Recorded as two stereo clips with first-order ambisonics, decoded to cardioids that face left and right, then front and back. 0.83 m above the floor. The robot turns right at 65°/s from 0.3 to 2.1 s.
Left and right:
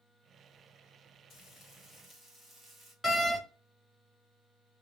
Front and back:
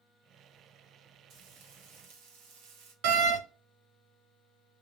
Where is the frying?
145° left, 1.2 m; by 2.9 s 165° right, 1.2 m.